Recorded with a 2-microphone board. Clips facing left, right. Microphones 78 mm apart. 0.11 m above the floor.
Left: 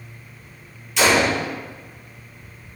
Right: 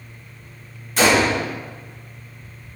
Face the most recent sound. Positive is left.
turn(degrees=-40)  # may be behind; listen again after turning